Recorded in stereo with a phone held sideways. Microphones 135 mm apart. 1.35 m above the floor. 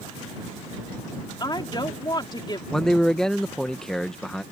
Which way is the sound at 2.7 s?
5° left (ahead or behind).